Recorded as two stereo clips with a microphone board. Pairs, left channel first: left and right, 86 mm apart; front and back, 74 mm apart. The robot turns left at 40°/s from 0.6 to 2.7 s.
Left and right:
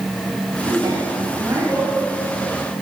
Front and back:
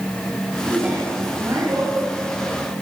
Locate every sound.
0.7 s a woman speaking: 105° right, 6 m; by 1.9 s 155° right, 6 m